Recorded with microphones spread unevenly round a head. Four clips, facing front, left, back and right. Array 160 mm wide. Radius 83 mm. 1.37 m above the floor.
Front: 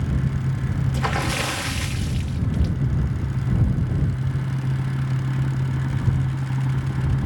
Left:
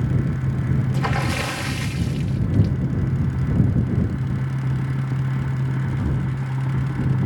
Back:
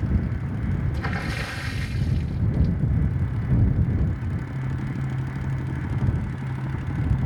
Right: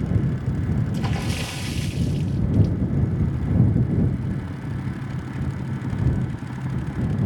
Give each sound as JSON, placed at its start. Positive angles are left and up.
{"t": 0.9, "sound": "a splash", "azimuth_deg": 60}